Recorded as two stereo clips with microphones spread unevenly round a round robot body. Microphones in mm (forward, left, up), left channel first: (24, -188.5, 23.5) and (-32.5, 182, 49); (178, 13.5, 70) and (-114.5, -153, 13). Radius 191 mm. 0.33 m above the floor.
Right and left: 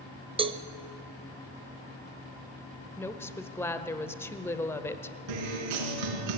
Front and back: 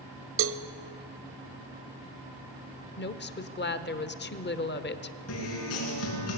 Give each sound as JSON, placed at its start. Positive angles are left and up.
{"t": 0.4, "sound": "a cowbell", "azimuth_deg": 175, "distance_m": 0.9}
{"t": 3.0, "sound": "a woman speaking", "azimuth_deg": -15, "distance_m": 1.2}
{"t": 5.3, "sound": "a guitar", "azimuth_deg": 85, "distance_m": 5.5}